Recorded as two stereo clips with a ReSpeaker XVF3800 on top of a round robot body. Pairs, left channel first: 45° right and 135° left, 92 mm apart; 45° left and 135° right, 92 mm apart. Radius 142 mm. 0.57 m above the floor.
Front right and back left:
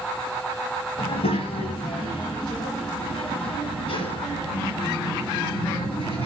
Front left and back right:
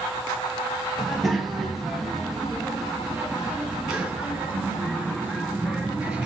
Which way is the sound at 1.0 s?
40° right.